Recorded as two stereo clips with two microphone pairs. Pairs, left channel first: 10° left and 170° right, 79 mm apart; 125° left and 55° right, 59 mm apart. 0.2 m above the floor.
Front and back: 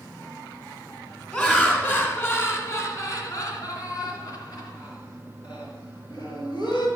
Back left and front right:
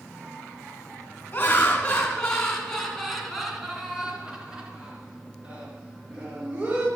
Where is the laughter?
80° left, 2.0 m; by 6.9 s 5° left, 3.5 m.